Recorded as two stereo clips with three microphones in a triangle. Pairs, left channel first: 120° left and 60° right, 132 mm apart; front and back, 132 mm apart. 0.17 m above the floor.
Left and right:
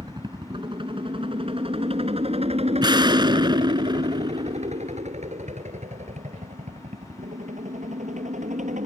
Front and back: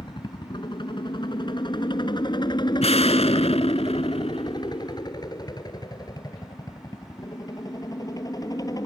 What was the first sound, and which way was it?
A helicopter, 25° right.